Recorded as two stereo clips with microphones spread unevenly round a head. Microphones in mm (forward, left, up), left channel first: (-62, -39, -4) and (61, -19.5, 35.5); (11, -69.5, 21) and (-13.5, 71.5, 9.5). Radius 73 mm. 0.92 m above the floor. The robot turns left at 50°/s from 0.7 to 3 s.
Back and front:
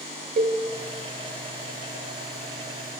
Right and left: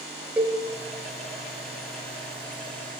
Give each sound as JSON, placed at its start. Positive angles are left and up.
{"t": 0.4, "sound": "a cowbell", "azimuth_deg": 20, "distance_m": 2.0}